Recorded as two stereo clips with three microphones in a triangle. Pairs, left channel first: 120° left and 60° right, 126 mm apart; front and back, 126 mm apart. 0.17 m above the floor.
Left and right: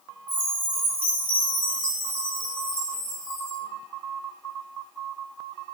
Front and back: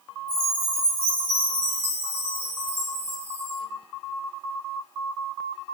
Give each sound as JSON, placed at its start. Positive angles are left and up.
{"t": 0.3, "sound": "a chime", "azimuth_deg": 125, "distance_m": 1.4}